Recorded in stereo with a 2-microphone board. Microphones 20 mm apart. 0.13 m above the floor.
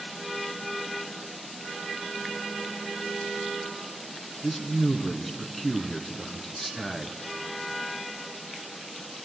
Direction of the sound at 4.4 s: 5° left (ahead or behind).